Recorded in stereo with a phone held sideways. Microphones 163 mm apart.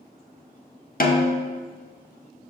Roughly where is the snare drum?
Left.